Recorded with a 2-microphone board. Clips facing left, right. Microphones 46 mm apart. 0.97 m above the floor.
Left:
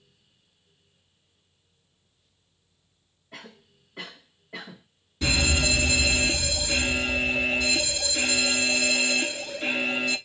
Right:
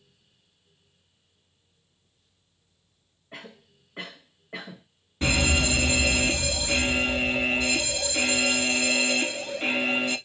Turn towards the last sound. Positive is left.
turn(degrees=-45)  # may be behind; listen again after turning